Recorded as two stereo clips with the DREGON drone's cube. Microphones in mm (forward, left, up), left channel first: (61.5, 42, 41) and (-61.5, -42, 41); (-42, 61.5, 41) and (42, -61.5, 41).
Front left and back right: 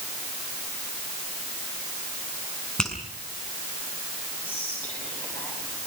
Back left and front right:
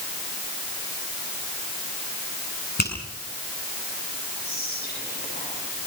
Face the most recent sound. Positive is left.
turn(degrees=110)